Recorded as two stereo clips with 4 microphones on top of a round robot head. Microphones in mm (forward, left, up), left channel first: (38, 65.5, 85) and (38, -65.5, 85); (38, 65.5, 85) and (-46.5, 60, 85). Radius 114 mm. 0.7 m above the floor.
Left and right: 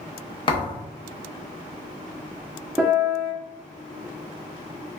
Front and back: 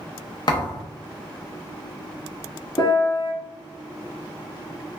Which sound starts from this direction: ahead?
A piano, at 2.8 s.